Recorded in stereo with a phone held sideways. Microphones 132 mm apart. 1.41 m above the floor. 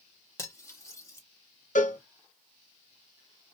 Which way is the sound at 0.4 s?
20° left (ahead or behind).